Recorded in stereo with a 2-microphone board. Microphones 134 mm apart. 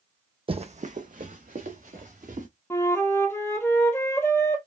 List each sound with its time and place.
0.5 s running footsteps: 40° right (ahead or behind), 0.6 m; by 2.5 s 85° right, 2.5 m
2.7 s a flute: 15° left (ahead or behind), 1.1 m